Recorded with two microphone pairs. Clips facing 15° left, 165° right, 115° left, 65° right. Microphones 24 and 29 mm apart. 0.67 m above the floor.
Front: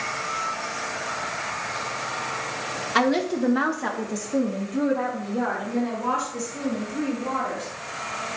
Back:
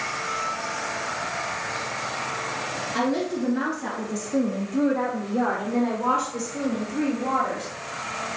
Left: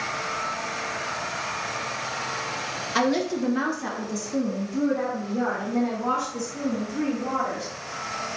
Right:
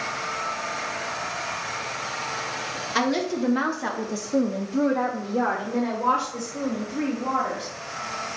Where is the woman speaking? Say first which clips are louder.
Front 4 dB, left 1 dB; 25° left, 1.5 m; by 7.7 s 115° right, 3.5 m.